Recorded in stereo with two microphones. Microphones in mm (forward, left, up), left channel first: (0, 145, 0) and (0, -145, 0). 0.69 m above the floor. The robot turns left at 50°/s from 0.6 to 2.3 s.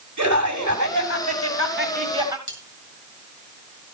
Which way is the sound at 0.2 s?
85° right.